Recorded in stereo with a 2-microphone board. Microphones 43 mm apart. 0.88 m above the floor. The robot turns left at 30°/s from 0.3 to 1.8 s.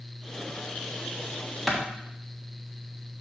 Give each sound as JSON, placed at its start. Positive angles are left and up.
{"t": 1.7, "sound": "a clap", "side_deg": -5, "distance_m": 1.1}